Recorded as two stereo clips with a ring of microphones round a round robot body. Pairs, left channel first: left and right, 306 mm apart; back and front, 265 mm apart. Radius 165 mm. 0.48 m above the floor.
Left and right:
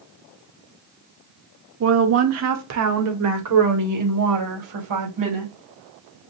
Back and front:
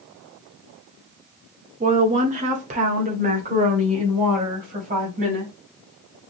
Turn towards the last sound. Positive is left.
turn(degrees=-65)